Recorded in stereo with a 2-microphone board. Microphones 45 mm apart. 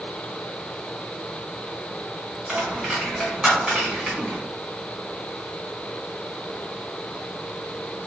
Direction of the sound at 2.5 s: 15° right (ahead or behind).